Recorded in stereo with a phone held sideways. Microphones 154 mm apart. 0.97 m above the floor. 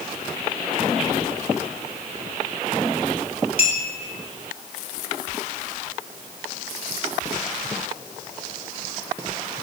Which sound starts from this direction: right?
A clink, at 3.6 s.